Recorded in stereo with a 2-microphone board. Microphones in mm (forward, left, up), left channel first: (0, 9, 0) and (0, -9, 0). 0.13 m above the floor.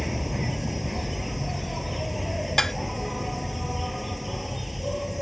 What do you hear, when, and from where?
0.0 s an insect: 5° right (ahead or behind)
2.6 s dishes clattering: 20° left (ahead or behind)